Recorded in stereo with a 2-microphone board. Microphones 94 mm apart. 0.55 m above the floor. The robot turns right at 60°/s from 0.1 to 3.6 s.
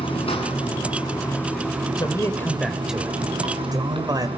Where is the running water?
80° left, 5.5 m; by 4.4 s 70° right, 5.5 m.